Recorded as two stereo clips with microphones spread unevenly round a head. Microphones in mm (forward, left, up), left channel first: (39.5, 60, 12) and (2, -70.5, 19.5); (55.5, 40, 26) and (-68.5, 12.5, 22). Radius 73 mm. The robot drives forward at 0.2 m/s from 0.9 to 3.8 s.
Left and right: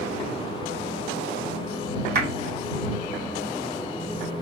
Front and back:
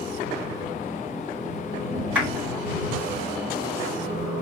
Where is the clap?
85° right, 2.5 m.